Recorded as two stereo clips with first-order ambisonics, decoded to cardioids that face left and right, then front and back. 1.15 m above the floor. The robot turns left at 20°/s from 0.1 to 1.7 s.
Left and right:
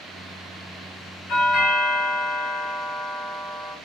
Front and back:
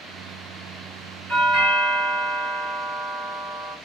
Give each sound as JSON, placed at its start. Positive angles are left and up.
{"t": 1.3, "sound": "a doorbell", "azimuth_deg": 110, "distance_m": 2.5}